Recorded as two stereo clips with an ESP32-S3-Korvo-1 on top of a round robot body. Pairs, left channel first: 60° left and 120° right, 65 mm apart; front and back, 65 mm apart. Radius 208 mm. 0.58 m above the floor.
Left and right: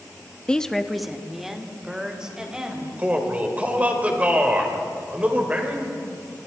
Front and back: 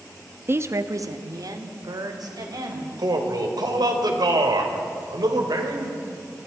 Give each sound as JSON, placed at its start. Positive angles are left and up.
{"t": 0.5, "sound": "a woman speaking", "azimuth_deg": 135, "distance_m": 1.1}
{"t": 3.0, "sound": "a man speaking", "azimuth_deg": 170, "distance_m": 3.0}